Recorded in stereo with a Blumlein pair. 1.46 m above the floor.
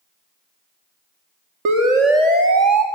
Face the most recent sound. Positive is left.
turn(degrees=-20)